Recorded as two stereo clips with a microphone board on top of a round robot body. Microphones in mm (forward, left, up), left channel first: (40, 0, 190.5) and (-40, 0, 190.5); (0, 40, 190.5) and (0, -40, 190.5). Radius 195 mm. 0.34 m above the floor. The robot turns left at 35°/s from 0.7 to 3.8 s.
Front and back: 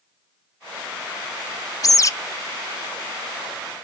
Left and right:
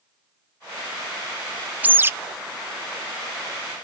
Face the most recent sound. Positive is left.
turn(degrees=-95)